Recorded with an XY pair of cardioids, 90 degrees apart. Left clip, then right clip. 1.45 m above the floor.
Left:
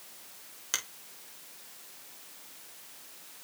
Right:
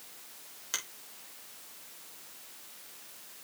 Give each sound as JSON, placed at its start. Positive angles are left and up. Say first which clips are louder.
{"t": 0.7, "sound": "a finger snap", "louder": "left 3 dB", "azimuth_deg": 35, "distance_m": 3.0}